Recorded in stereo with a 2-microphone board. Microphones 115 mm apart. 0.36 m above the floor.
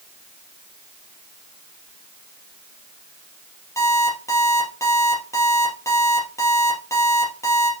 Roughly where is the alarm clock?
Left.